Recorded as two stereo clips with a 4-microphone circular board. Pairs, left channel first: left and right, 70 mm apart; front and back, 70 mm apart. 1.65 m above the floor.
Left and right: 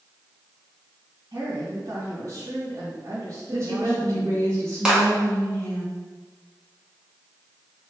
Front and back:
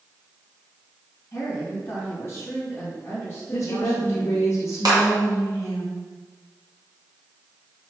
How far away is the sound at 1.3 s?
About 2.5 m.